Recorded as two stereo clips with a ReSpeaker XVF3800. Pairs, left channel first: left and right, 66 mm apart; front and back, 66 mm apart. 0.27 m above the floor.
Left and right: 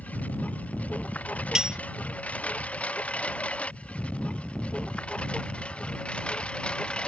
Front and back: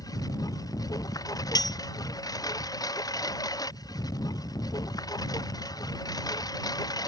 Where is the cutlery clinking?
10° right.